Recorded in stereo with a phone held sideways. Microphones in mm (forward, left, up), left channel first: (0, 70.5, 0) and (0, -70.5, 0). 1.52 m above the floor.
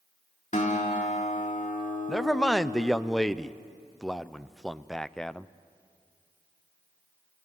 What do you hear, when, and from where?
0.5 s a guitar: 60° left (ahead or behind), 3 m
2.1 s a man speaking: 5° left (ahead or behind), 0.6 m